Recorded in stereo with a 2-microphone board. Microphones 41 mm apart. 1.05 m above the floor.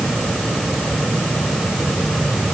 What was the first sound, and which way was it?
Only background noise.